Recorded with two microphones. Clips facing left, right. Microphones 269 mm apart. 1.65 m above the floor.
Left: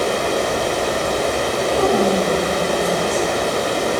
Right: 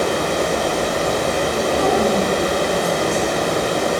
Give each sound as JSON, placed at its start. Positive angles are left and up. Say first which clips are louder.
{"t": 0.0, "sound": "running water", "louder": "even", "side_deg": -55, "distance_m": 5.5}
{"t": 1.7, "sound": "a woman speaking", "louder": "left 2 dB", "side_deg": 55, "distance_m": 5.5}